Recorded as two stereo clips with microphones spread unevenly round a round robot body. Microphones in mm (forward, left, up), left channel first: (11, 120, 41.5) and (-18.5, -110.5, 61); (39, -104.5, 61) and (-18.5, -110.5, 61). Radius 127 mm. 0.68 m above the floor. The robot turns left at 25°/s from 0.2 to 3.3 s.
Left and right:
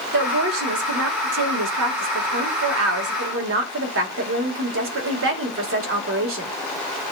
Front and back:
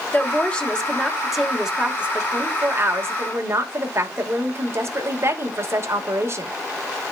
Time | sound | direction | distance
0.1 | a woman speaking | 55° right | 2.5 m